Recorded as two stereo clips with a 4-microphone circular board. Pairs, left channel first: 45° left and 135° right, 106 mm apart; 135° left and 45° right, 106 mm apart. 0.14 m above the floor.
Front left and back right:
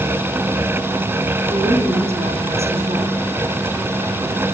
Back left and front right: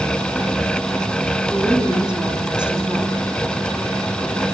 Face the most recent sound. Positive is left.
turn(degrees=-125)